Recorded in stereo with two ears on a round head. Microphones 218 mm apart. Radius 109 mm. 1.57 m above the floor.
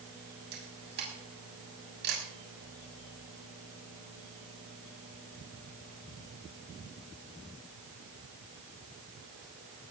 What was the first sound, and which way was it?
A camera shutter, 45° right (ahead or behind).